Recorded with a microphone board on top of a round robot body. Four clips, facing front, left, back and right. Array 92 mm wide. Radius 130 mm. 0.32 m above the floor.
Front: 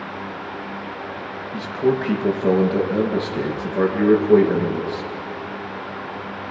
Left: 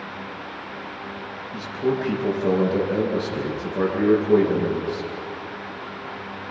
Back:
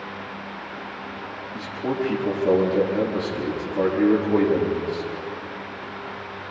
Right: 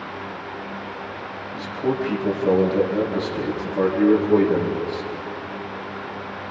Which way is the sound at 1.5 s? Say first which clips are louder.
Even, front 7 dB; 20° left.